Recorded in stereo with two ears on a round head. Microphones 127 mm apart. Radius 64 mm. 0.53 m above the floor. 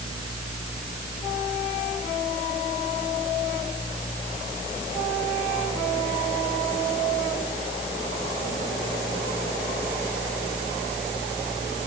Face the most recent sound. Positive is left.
No sound to turn to.